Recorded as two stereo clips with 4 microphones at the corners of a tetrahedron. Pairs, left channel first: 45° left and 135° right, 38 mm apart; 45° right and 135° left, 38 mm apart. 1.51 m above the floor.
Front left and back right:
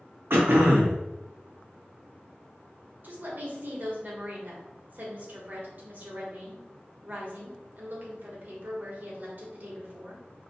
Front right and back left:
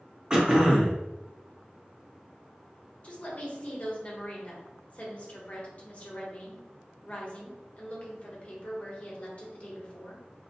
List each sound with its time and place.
0.3 s throat clearing: 155° right, 0.5 m
3.0 s a woman speaking: 100° right, 0.8 m